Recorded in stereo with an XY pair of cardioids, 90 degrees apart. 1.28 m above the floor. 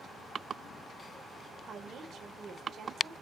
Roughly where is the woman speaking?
Ahead right.